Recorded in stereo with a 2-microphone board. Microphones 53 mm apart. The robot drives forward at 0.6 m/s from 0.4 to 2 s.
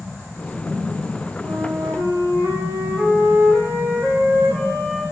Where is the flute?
60° right (ahead or behind), 6 m.